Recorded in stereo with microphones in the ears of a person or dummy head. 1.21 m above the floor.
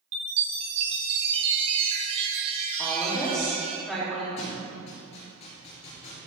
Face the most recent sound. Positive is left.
turn(degrees=40)  # may be behind; listen again after turning